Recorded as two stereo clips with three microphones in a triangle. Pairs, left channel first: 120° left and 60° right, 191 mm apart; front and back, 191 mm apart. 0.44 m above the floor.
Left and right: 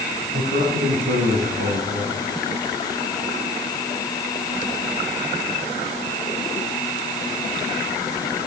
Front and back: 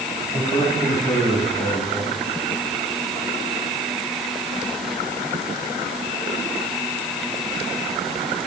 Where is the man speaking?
65° right, 5.5 m; by 2.2 s 75° right, 4.5 m.